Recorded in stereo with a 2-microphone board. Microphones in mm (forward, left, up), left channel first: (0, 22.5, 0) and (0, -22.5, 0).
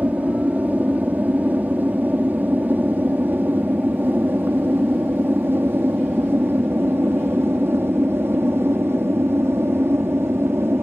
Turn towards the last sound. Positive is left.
turn(degrees=-60)  # may be behind; listen again after turning